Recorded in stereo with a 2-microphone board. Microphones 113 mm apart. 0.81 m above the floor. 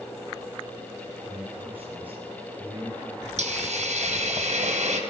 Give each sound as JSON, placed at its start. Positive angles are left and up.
{"t": 1.3, "sound": "a man speaking", "side_deg": -15, "distance_m": 4.0}
{"t": 3.4, "sound": "a hiss", "side_deg": -85, "distance_m": 3.5}